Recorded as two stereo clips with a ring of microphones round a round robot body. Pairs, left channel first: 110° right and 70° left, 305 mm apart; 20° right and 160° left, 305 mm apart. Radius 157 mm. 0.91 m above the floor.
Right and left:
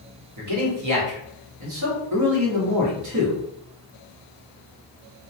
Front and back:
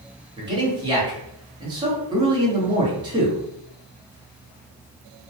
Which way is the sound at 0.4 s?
85° left.